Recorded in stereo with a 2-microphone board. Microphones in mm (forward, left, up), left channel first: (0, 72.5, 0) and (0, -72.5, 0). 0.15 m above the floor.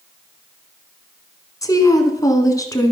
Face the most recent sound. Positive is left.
turn(degrees=25)  # may be behind; listen again after turning